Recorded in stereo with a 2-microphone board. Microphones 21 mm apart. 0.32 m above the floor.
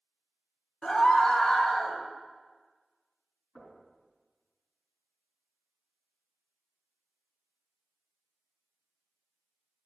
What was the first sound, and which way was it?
A scream, 25° left (ahead or behind).